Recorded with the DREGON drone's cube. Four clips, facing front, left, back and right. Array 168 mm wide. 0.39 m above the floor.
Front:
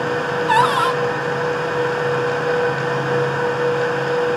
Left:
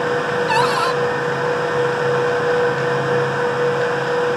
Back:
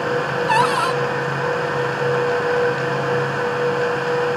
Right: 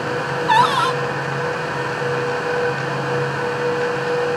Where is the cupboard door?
60° right, 1.2 m.